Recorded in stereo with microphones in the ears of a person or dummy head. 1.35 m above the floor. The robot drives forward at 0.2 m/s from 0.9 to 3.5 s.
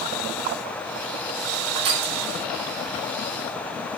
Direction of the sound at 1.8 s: 60° right (ahead or behind).